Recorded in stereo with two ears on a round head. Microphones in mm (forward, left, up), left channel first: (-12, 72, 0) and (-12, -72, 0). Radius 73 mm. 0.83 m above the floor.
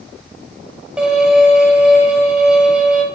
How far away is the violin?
About 1.8 m.